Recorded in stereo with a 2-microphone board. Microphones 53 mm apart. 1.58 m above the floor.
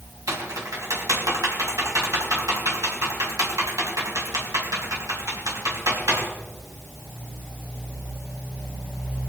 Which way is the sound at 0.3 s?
85° right.